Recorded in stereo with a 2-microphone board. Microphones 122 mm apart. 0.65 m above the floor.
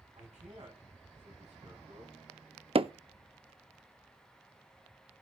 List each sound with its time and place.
0.1 s a man speaking: 65° right (ahead or behind), 6 m
2.8 s hammering: 50° right (ahead or behind), 0.5 m